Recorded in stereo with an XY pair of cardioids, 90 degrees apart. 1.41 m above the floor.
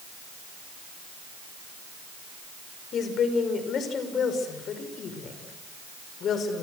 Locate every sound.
2.9 s a woman speaking: 70° left, 6 m